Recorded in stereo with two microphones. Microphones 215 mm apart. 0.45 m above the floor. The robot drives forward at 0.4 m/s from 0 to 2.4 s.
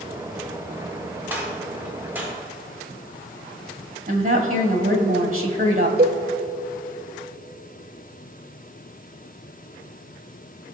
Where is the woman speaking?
40° right (ahead or behind), 1.9 m.